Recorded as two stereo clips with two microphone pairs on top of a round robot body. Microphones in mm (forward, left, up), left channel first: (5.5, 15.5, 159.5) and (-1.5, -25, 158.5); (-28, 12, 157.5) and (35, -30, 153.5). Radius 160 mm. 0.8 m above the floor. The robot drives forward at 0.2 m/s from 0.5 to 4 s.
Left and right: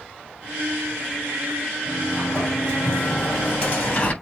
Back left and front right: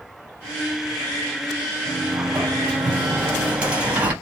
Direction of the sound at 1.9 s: 35° left.